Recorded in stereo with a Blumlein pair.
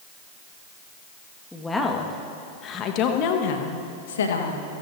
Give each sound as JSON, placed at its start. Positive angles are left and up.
{"t": 1.5, "sound": "a woman speaking", "azimuth_deg": 5, "distance_m": 2.0}